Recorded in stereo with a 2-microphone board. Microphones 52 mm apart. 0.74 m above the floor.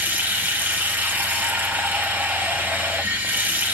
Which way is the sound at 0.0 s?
35° right (ahead or behind).